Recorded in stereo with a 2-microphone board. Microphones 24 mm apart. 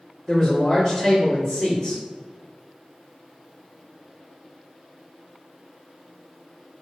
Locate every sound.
0.3 s a man speaking: 5° left (ahead or behind), 1.4 m